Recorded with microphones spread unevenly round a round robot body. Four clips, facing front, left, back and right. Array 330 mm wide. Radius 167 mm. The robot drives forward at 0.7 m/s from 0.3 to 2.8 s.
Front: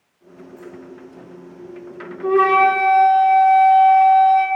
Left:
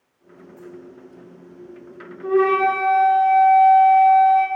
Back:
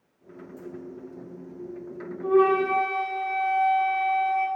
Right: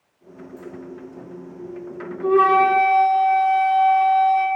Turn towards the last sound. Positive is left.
turn(degrees=-65)